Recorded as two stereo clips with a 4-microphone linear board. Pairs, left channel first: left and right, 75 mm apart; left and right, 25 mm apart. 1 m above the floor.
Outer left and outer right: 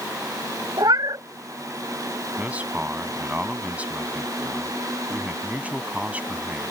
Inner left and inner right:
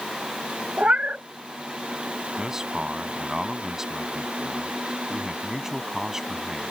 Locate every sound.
0.8 s a cat meowing: 65° right (ahead or behind)
2.4 s a man speaking: 20° right (ahead or behind)